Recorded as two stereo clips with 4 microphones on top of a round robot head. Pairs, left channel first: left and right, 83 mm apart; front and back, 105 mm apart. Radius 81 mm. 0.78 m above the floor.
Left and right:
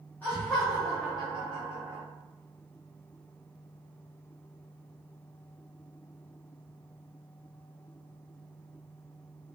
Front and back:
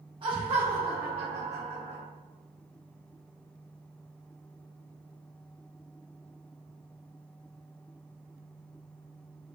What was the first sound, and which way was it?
Laughter, 150° left.